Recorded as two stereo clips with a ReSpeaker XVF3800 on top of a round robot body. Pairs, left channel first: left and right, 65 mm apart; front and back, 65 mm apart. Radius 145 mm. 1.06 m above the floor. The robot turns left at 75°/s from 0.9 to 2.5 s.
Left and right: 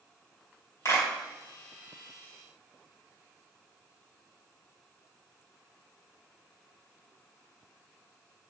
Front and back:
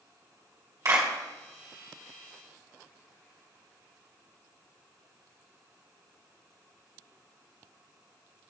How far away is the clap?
About 2.5 m.